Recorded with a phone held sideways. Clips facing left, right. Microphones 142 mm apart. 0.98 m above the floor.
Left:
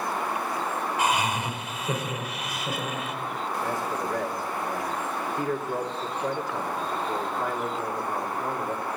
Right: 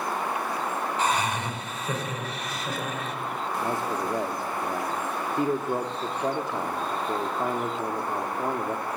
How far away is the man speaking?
About 1.8 m.